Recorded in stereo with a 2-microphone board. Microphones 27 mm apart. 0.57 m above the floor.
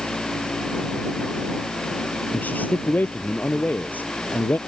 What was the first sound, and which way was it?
A man speaking, 85° left.